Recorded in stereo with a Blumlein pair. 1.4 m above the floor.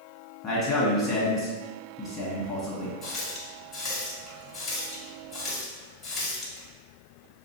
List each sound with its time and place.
0.4 s a man speaking: 25° left, 1.8 m
3.0 s a running tap: 25° left, 1.7 m